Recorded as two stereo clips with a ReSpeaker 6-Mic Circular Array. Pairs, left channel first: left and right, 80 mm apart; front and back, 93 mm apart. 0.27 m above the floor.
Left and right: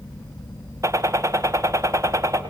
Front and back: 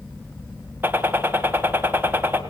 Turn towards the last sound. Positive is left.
turn(degrees=-120)